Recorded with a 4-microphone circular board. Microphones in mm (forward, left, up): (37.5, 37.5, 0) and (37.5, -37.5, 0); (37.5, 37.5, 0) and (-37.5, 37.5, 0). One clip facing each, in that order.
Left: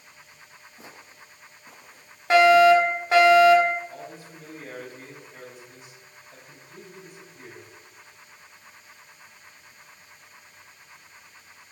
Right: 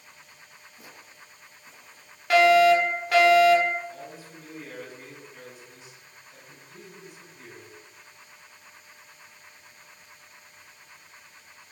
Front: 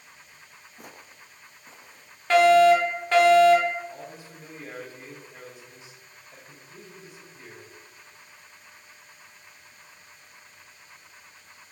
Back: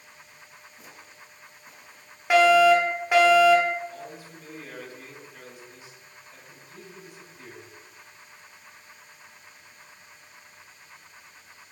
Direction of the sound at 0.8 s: 25° left.